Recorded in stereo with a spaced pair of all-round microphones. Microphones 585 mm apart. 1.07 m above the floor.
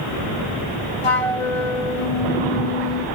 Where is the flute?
60° left (ahead or behind).